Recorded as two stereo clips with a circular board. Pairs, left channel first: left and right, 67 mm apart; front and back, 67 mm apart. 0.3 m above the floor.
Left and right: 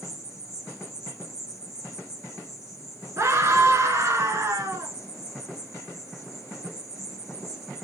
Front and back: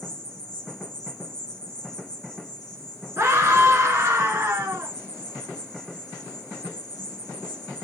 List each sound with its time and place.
0.0 s an insect: 170° right, 5.5 m
3.2 s a scream: 135° right, 5 m